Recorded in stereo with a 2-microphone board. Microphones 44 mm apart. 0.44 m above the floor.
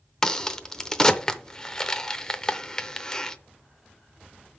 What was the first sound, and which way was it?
A crack, 15° left (ahead or behind).